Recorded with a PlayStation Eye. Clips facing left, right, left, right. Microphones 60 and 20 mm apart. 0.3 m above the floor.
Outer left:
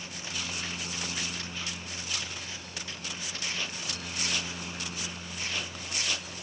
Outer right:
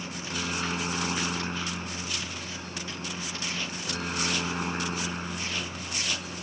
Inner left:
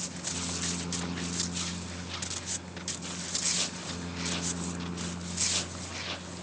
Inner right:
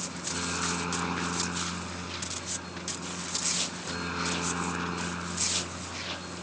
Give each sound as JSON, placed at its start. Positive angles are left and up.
{"t": 0.0, "sound": "a helicopter", "side_deg": -50}